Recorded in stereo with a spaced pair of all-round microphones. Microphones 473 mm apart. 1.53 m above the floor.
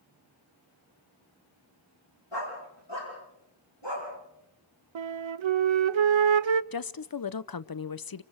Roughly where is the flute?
Right.